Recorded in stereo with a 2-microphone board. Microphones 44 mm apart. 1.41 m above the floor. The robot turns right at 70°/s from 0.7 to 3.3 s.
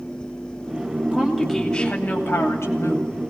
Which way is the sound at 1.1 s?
30° right.